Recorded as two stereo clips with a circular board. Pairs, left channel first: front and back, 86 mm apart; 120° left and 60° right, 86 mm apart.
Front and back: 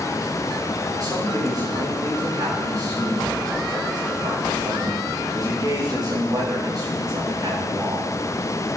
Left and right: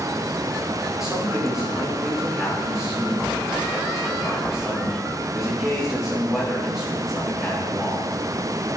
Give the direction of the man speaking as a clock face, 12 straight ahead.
5 o'clock.